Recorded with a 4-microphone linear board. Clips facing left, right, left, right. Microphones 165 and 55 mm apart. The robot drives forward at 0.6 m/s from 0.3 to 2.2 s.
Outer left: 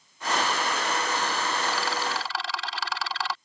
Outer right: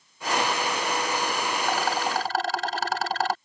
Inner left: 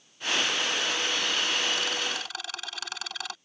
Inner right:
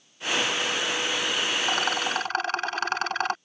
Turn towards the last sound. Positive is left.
turn(degrees=-45)  # may be behind; listen again after turning